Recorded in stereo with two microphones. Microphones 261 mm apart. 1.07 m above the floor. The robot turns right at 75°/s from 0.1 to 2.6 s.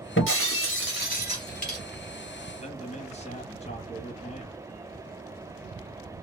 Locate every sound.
0.2 s breaking glass: 65° left, 1.6 m; by 1.8 s 175° right, 1.6 m
2.6 s a man speaking: 25° left (ahead or behind), 1.2 m